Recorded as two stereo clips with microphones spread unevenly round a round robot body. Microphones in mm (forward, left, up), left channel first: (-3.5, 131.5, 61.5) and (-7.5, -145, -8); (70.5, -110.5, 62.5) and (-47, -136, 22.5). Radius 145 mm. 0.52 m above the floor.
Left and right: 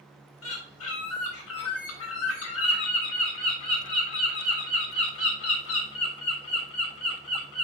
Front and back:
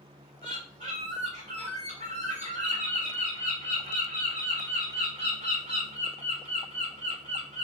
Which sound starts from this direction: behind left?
A bird, at 0.4 s.